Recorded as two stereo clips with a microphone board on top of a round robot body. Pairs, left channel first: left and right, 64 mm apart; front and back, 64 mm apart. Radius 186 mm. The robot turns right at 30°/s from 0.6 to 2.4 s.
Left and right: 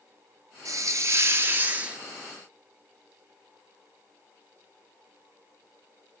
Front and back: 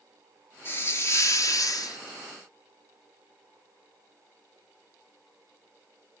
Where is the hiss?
55° right, 1.1 m; by 2.0 s 15° right, 1.1 m.